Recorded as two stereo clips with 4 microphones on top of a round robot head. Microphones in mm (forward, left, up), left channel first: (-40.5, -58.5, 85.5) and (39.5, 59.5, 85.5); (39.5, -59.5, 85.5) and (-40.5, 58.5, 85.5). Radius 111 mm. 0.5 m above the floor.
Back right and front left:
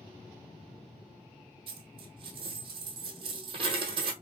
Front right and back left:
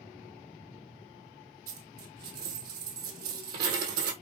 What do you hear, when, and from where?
1.7 s a dropped coin: 110° left, 1.4 m